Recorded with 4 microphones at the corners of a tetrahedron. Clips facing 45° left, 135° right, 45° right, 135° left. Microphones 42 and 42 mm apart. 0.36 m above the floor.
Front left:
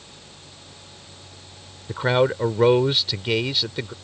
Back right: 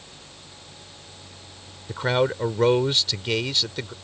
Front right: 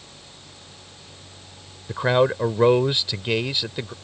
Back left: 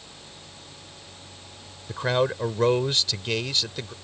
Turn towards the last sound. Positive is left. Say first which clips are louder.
# front left 3 dB, front right 5 dB
turn(degrees=-15)